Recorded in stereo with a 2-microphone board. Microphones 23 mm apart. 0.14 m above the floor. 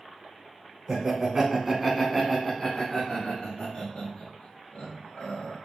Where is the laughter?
30° right (ahead or behind), 1.2 m; by 5.6 s 55° left (ahead or behind), 2.5 m.